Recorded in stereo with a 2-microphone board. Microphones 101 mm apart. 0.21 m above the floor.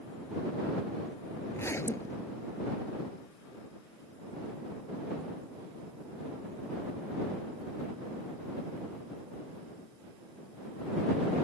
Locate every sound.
1.5 s a zipper: 25° left (ahead or behind)